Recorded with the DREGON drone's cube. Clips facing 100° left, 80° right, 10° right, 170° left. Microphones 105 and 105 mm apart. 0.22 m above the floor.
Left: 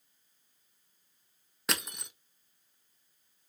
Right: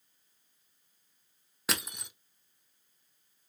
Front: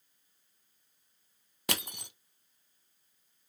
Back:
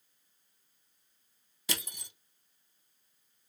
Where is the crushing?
10° left, 0.5 m.